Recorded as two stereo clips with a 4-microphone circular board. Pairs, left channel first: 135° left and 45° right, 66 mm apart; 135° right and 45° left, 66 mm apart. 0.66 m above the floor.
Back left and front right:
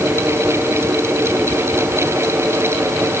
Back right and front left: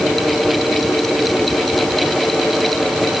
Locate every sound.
Only background noise.